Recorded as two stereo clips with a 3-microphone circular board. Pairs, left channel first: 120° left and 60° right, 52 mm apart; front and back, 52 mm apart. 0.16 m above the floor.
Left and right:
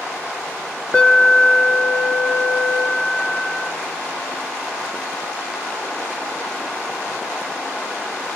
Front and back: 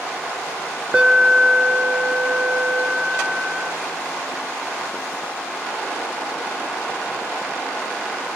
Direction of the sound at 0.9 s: 150° left.